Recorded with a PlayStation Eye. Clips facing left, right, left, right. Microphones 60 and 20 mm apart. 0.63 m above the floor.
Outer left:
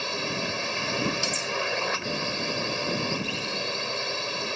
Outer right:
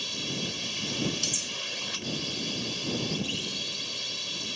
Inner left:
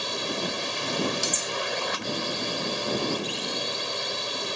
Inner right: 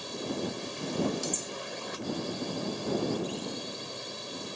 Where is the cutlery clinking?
55° left (ahead or behind).